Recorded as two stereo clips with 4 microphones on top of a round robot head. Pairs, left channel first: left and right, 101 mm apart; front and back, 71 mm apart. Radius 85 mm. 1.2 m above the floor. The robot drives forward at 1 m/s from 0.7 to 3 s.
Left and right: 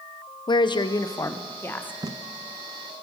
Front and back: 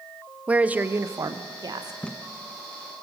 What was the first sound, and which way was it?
A woman speaking, 115° left.